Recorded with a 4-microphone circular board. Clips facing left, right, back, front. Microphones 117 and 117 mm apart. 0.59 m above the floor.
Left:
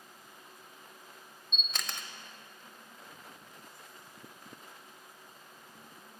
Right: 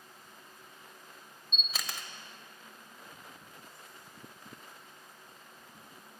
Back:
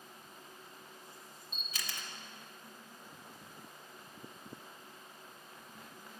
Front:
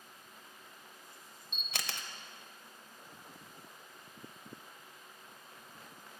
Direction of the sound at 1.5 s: 5° right.